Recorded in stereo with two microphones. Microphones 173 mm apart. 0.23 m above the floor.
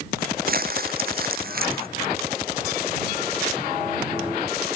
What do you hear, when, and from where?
0.5 s crumpling: 60° right (ahead or behind)